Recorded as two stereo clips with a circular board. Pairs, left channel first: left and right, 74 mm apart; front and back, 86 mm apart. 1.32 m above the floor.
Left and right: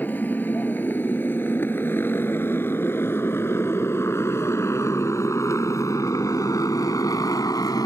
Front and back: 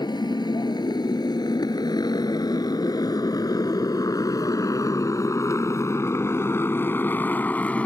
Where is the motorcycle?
25° left; by 7.9 s 70° left.